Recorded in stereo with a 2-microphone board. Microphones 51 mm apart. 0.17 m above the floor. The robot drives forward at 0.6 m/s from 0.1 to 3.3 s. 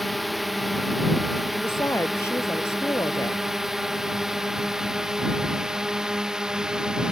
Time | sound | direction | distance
0.0 | a drone | centre (ahead or behind) | ?
1.6 | a woman speaking | 60° left (ahead or behind) | ?